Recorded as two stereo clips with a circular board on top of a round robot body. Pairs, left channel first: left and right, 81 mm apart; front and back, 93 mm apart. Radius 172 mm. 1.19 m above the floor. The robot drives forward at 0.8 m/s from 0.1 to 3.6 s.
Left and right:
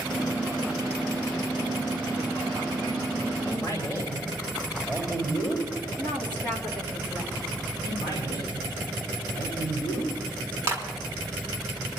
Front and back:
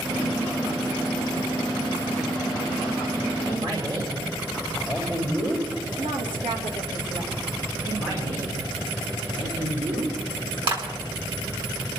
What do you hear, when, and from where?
3.4 s a man speaking: 140° left, 4.5 m
6.0 s a woman speaking: 160° left, 3.5 m
7.8 s a man speaking: 140° left, 4.5 m
10.7 s a clap: 150° right, 3.5 m